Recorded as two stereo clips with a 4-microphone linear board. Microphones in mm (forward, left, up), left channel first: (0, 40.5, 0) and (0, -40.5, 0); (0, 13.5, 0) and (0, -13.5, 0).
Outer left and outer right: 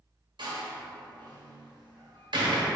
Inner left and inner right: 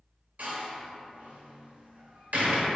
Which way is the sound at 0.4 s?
70° right (ahead or behind).